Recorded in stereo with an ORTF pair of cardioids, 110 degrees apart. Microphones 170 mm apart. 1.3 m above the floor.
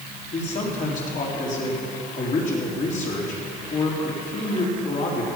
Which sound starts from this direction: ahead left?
A man speaking, at 0.3 s.